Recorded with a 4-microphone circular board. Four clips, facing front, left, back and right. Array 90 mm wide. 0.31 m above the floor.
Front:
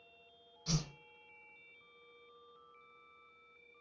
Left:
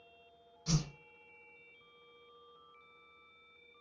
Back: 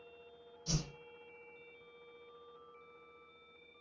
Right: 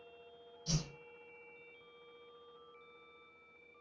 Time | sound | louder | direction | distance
0.7 | a whoosh | left 4 dB, front 1 dB | 55° left | 1.1 m